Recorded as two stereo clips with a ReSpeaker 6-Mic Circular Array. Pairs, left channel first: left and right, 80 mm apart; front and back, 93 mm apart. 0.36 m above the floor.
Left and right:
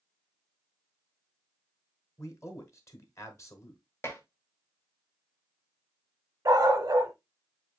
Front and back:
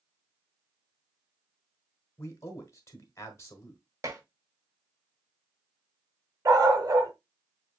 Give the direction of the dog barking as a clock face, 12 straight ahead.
4 o'clock.